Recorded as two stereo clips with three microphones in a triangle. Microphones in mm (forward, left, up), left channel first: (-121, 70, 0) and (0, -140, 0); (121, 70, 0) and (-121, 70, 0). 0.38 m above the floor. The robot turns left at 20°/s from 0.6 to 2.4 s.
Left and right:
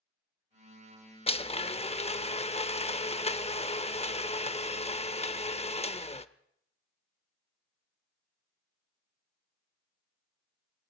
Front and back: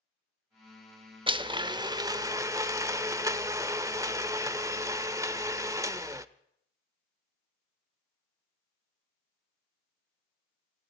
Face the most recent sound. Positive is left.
turn(degrees=120)